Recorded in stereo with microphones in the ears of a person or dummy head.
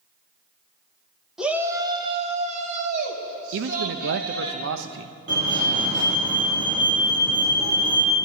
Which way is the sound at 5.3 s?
60° right (ahead or behind).